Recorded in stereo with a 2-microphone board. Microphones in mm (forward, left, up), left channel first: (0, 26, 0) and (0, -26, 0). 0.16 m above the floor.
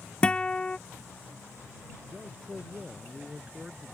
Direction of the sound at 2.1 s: 25° right (ahead or behind).